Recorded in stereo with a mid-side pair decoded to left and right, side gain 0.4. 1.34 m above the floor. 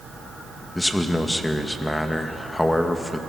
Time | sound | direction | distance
0.8 | a man speaking | 15° left | 2.0 m